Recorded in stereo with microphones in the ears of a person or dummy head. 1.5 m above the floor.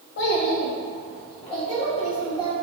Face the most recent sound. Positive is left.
turn(degrees=30)  # may be behind; listen again after turning